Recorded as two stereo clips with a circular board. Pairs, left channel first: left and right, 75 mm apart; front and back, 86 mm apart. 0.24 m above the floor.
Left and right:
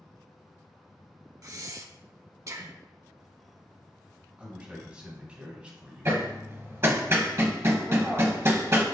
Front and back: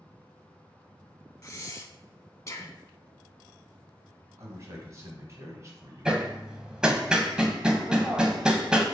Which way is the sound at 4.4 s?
155° right.